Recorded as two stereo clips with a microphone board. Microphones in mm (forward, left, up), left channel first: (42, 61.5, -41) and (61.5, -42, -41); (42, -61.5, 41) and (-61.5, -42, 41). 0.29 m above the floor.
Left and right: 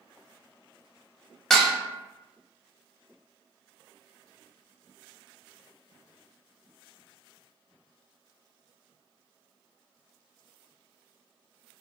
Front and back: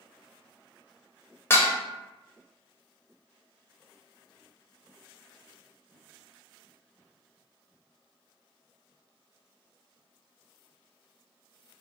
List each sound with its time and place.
1.5 s dishes clattering: 20° left, 0.6 m